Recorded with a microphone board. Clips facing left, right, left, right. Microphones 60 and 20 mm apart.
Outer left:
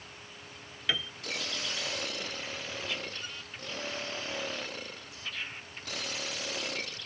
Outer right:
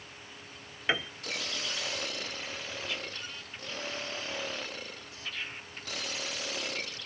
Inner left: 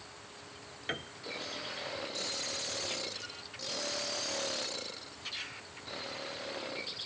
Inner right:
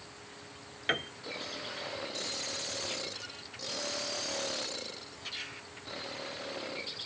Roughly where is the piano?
Right.